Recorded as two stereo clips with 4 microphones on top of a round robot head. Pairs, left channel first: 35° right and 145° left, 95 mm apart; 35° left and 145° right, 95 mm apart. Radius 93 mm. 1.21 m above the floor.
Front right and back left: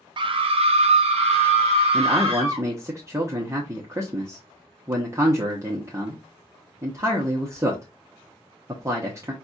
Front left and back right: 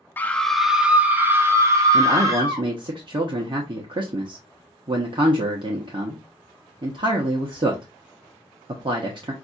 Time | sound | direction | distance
0.2 | a scream | 105° left | 0.5 m
1.9 | a man speaking | 165° right | 1.0 m